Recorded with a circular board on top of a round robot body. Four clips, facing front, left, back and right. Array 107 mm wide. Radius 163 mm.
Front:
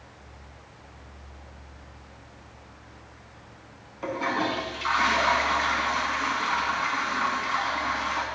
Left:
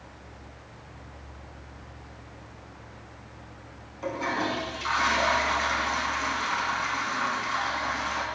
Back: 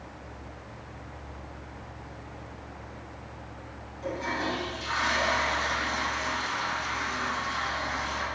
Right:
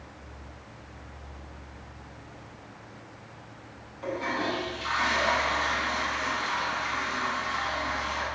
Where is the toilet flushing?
10° left, 2.5 m.